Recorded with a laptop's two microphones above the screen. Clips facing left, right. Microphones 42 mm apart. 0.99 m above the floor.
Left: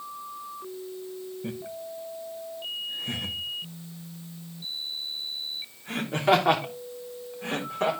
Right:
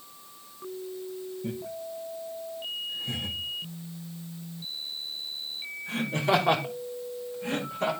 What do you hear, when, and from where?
1.4 s laughter: 35° left (ahead or behind), 1.1 m; by 7.9 s 75° left (ahead or behind), 4 m